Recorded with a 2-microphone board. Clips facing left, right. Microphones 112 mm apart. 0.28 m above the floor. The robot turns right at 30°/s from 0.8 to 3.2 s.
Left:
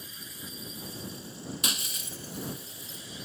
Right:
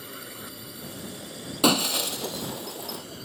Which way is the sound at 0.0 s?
120° right.